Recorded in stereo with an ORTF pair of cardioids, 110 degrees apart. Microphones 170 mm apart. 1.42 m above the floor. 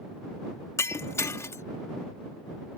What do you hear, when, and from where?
0.8 s breaking glass: 15° left